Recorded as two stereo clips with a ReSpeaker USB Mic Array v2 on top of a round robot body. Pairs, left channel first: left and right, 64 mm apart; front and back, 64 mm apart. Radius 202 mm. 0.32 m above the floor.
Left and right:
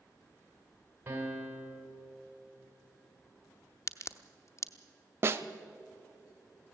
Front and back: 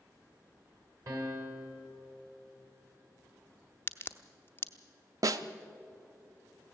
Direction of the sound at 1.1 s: 150° right.